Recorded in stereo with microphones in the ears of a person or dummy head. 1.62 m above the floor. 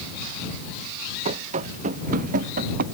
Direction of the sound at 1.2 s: 45° right (ahead or behind).